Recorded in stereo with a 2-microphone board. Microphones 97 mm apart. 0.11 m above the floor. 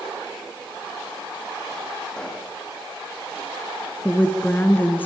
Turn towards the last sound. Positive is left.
turn(degrees=20)  # may be behind; listen again after turning